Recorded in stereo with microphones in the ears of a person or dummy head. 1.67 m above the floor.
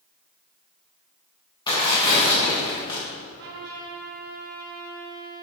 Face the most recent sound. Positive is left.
turn(degrees=-55)  # may be behind; listen again after turning